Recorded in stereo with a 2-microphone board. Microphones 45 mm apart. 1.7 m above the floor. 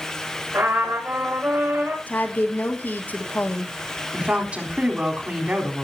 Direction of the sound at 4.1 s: 30° right (ahead or behind).